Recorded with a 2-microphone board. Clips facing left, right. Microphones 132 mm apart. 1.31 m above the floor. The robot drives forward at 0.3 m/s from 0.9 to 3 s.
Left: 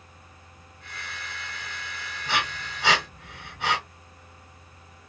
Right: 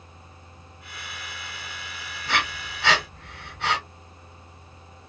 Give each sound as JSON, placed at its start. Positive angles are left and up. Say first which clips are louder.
{"t": 2.3, "sound": "breathing", "louder": "right 1 dB", "side_deg": 10, "distance_m": 1.7}